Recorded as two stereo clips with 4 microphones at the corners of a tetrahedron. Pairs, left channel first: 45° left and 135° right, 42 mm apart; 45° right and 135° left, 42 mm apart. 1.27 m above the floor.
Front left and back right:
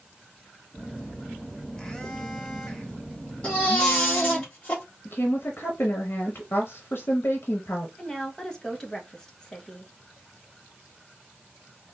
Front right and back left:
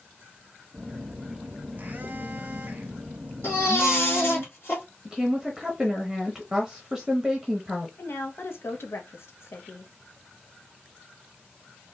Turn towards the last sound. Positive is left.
turn(degrees=-25)